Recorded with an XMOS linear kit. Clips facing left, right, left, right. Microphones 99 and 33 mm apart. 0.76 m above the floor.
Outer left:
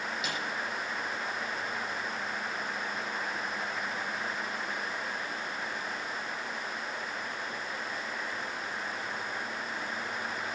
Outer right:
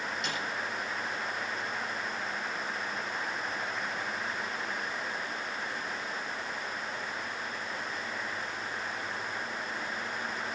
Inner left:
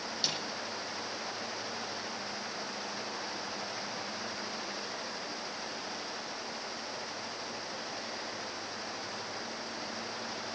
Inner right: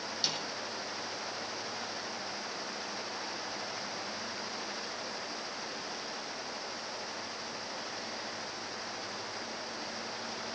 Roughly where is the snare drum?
Centre.